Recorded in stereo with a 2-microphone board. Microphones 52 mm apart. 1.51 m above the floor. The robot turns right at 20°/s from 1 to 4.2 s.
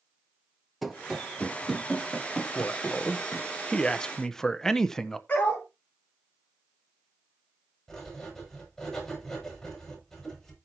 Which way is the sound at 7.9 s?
10° left (ahead or behind).